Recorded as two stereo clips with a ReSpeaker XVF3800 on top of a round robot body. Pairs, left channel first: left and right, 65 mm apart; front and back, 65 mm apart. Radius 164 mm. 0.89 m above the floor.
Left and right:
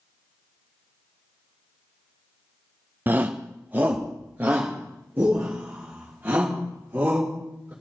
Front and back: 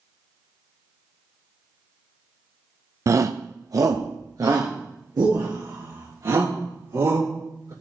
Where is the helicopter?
No helicopter in this recording.